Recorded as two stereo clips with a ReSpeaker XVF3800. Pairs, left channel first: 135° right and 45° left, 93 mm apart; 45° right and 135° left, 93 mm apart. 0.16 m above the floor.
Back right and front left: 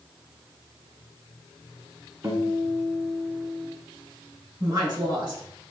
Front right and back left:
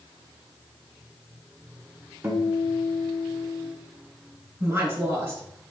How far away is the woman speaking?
About 2 m.